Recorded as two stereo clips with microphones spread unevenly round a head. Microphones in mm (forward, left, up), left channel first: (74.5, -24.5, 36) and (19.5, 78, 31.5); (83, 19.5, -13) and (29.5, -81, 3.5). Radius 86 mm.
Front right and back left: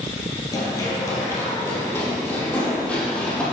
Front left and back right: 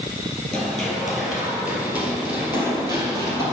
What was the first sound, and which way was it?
Running footsteps, 30° right.